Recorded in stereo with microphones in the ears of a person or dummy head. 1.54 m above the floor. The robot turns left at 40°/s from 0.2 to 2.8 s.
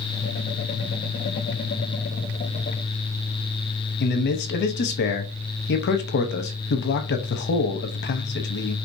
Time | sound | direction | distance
4.0 | a man speaking | 55° left (ahead or behind) | 0.8 m